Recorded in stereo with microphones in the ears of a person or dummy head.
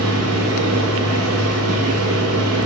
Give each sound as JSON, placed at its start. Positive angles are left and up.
{"t": 0.0, "sound": "a machine running", "side_deg": -85, "distance_m": 2.0}